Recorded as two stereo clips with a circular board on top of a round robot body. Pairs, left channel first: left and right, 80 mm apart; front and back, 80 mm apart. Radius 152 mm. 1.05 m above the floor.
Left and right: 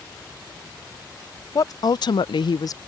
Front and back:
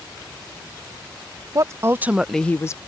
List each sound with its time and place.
1.6 s a woman speaking: 130° left; by 2.8 s 45° left